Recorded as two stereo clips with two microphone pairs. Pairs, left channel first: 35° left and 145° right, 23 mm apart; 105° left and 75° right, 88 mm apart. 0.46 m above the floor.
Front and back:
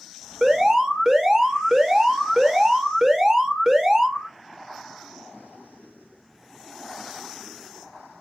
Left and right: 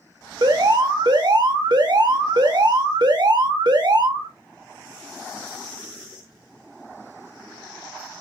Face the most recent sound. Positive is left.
turn(degrees=-80)